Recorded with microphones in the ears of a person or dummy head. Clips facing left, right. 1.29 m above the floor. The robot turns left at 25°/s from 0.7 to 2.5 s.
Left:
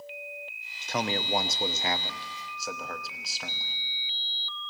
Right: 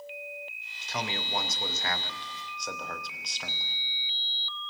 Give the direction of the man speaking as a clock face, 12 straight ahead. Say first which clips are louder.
Left 5 dB; 11 o'clock.